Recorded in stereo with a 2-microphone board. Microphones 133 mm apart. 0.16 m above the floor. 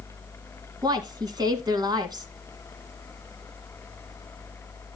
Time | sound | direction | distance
0.8 | a woman speaking | 30° right (ahead or behind) | 1.6 m